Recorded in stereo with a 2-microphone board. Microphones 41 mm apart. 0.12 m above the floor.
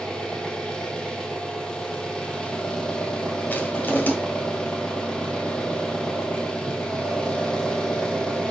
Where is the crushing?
45° left (ahead or behind), 2.5 m.